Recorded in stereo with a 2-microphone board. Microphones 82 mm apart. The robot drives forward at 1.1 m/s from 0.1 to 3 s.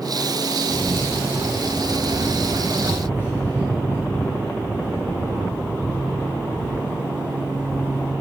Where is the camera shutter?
40° left (ahead or behind), 4 m; by 8.1 s 25° left (ahead or behind), 6.5 m.